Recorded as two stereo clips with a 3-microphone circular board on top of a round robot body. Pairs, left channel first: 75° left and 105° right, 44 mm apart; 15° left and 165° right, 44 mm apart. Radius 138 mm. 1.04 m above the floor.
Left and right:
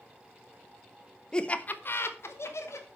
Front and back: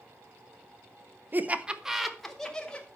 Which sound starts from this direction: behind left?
Laughter, at 1.3 s.